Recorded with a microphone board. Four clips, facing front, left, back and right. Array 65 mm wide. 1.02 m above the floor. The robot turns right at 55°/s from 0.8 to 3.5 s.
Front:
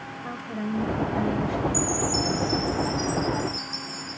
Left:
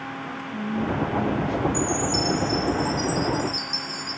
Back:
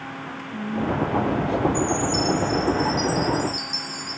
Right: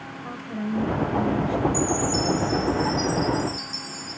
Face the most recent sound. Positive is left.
turn(degrees=160)